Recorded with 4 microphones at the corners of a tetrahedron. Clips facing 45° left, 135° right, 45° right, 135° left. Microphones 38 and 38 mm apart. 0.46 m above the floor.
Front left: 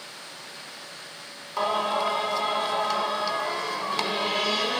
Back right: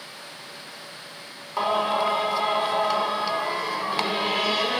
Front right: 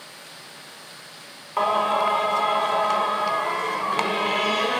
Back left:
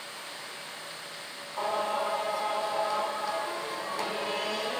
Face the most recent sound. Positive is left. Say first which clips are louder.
# back right 2 dB, front right 9 dB
turn(degrees=-60)